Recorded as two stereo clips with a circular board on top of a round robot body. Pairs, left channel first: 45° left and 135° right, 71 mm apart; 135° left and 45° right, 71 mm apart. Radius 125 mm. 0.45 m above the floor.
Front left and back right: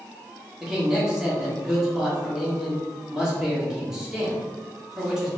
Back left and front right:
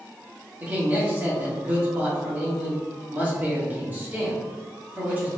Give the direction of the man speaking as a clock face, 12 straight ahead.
2 o'clock.